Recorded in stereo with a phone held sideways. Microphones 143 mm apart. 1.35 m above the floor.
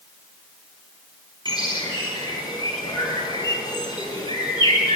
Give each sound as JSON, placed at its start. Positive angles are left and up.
{"t": 1.4, "sound": "a bird", "side_deg": 30, "distance_m": 6.0}